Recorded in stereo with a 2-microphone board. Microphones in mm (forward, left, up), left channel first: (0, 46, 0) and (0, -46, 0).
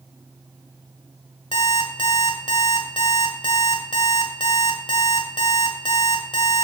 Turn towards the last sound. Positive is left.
turn(degrees=60)  # may be behind; listen again after turning